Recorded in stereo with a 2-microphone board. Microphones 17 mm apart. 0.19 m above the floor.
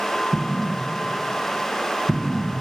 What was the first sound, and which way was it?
An explosion, 50° right (ahead or behind).